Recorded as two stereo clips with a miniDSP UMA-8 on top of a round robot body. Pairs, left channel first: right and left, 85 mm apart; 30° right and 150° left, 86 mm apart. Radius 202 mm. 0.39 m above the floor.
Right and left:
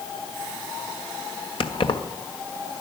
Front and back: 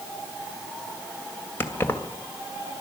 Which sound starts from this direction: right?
Keys jangling, at 1.6 s.